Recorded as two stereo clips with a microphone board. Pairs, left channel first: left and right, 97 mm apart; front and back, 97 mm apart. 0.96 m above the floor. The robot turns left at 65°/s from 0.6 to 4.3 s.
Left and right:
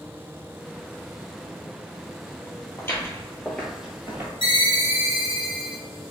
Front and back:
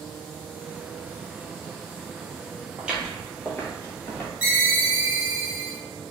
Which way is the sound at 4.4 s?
105° right.